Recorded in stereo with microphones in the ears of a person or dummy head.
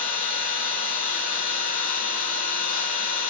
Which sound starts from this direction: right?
An engine running, at 0.0 s.